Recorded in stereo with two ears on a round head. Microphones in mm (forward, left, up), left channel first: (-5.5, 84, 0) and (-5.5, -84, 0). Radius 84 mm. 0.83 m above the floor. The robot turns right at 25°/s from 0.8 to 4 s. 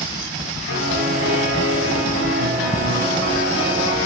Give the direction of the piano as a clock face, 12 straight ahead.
9 o'clock.